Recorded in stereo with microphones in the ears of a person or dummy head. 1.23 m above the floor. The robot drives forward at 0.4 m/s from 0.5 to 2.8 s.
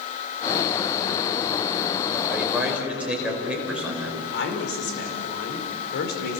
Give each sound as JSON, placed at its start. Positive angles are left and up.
{"t": 2.3, "sound": "a man speaking", "side_deg": 0, "distance_m": 4.5}
{"t": 4.3, "sound": "a woman speaking", "side_deg": 60, "distance_m": 4.5}